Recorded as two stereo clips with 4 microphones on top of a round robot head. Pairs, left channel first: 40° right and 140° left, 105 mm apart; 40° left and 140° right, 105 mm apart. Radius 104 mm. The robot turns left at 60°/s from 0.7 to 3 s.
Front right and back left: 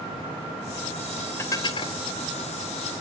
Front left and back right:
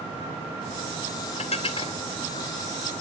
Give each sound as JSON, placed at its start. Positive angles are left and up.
{"t": 1.4, "sound": "dishes clattering", "azimuth_deg": 25, "distance_m": 2.0}